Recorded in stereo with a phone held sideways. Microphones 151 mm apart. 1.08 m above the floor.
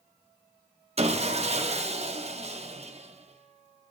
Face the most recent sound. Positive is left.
turn(degrees=-45)  # may be behind; listen again after turning